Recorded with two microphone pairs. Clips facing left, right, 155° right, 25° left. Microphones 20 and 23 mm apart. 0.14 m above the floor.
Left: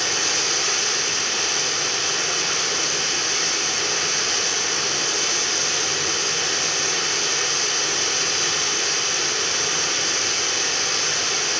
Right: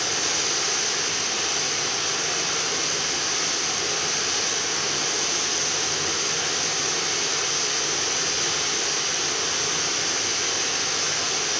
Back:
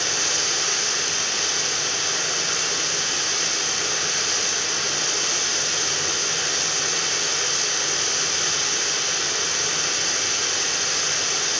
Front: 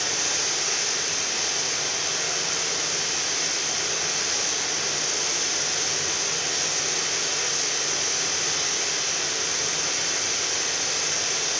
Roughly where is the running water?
Behind.